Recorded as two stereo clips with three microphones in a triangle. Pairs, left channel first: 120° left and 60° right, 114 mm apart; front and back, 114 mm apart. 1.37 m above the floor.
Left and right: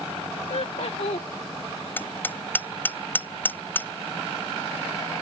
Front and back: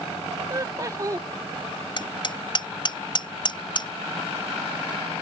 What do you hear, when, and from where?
0.5 s laughter: 125° left
2.0 s hammering: 45° left